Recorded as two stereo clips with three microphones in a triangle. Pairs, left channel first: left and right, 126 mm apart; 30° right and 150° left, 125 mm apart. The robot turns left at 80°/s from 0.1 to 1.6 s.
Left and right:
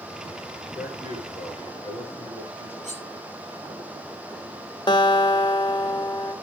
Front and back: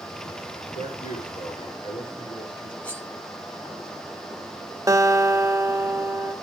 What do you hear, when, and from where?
0.8 s a man speaking: 10° right, 8.5 m; by 2.7 s 80° right, 8.5 m
2.8 s cutlery clinking: 110° right, 5.5 m
4.9 s a guitar: 105° left, 1.4 m